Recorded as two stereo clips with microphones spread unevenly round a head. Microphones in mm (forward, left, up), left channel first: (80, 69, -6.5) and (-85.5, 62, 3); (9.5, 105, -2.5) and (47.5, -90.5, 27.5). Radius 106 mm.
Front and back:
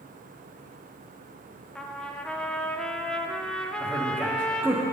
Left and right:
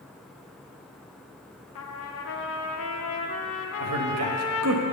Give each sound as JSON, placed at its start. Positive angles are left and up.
{"t": 1.8, "sound": "a trumpet", "azimuth_deg": 90, "distance_m": 0.7}
{"t": 3.8, "sound": "a man speaking", "azimuth_deg": -95, "distance_m": 1.0}